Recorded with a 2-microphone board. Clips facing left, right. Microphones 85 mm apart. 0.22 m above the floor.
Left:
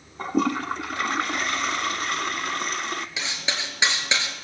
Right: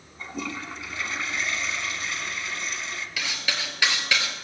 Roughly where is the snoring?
I don't hear snoring.